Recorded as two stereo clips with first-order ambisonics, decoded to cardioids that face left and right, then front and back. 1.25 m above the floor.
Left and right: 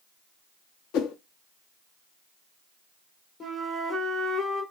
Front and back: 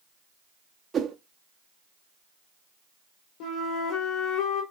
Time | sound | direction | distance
0.9 | a whoosh | 110° left | 1.1 m
3.4 | a flute | 20° left | 2.0 m